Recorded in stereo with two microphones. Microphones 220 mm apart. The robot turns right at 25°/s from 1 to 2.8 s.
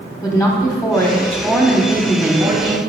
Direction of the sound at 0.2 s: 160° left.